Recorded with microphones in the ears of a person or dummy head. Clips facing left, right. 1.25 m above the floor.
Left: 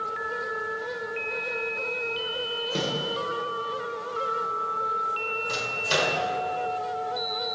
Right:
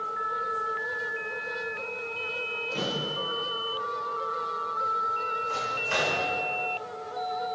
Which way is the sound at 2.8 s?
90° left.